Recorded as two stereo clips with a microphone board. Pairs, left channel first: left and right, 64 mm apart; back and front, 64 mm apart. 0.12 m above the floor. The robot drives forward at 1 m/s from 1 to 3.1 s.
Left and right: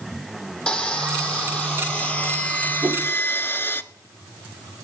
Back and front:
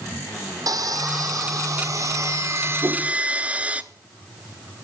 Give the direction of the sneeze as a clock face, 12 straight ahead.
No sneeze in this recording.